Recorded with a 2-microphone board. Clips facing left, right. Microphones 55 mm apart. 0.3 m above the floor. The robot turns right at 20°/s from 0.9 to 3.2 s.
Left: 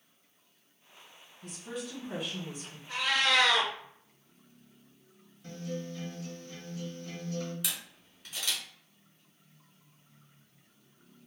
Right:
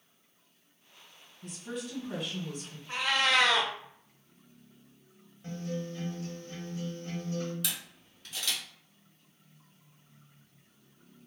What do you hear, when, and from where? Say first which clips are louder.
1.4 s a woman speaking: right 1 dB; centre (ahead or behind), 1.7 m; by 2.8 s 15° left (ahead or behind), 1.7 m
2.9 s a cat meowing: even; 30° right (ahead or behind), 0.7 m
5.4 s a guitar: right 2 dB; 30° right (ahead or behind), 1.1 m
7.6 s a camera shutter: right 1 dB; 5° left (ahead or behind), 1.5 m